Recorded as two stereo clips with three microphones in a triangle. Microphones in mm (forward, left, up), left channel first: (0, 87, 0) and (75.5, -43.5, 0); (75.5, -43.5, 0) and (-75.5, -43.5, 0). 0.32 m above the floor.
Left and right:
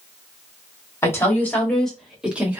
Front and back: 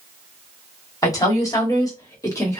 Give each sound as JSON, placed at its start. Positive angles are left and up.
{"t": 1.0, "sound": "a woman speaking", "azimuth_deg": 55, "distance_m": 1.4}